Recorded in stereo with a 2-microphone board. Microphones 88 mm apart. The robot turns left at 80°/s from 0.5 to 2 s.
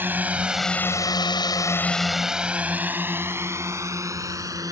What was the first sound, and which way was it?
A drone, 20° right (ahead or behind).